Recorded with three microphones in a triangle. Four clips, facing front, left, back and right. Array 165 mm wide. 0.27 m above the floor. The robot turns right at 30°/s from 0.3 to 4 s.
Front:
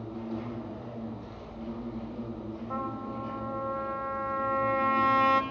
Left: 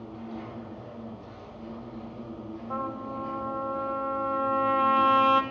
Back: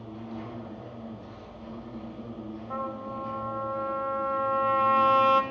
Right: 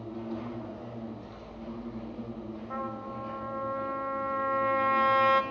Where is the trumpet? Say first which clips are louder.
Left 4 dB, back 1 dB; 80° left, 0.6 m; by 5.4 s 120° left, 0.6 m.